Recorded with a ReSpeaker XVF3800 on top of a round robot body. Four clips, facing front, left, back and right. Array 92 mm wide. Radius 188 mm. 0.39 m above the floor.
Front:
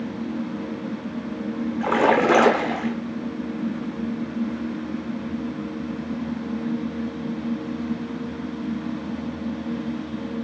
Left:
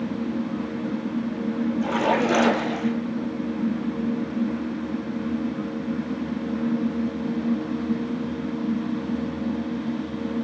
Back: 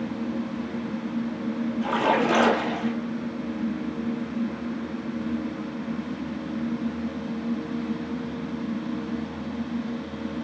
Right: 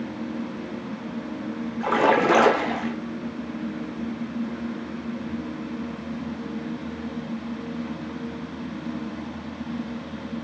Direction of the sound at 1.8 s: 35° right.